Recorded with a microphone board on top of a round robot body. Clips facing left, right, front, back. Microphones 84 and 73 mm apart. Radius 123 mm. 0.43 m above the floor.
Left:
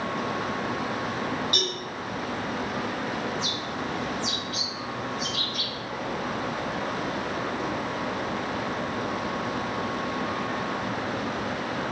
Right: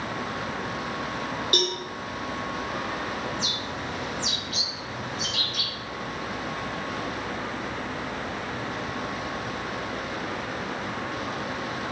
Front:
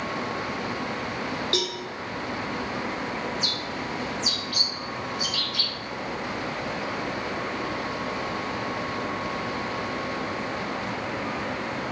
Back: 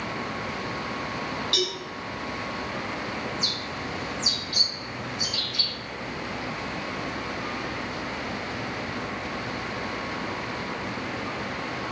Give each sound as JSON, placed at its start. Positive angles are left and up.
{"t": 1.5, "sound": "a cowbell", "azimuth_deg": -55, "distance_m": 4.0}
{"t": 3.3, "sound": "a bird", "azimuth_deg": -115, "distance_m": 2.5}